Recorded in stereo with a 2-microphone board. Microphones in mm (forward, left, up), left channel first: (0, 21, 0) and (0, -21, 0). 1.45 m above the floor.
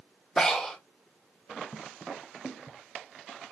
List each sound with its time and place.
0.4 s breathing: 10° left (ahead or behind), 1.4 m